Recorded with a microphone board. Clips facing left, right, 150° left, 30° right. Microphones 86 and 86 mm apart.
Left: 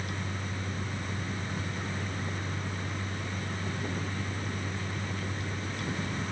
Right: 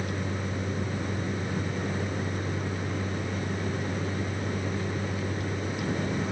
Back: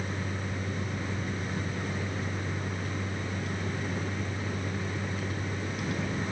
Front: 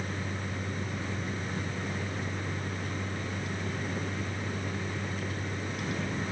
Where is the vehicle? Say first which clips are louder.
Right 5 dB, back 1 dB; 125° right.